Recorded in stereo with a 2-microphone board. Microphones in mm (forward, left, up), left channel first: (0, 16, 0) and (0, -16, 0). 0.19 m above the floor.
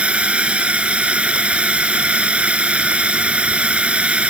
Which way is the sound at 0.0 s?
40° right (ahead or behind).